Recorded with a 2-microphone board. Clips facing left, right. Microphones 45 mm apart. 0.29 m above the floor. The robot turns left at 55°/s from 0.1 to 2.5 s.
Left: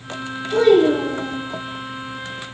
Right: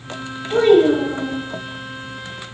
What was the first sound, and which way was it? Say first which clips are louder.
A child speaking: right 1 dB; 110° right.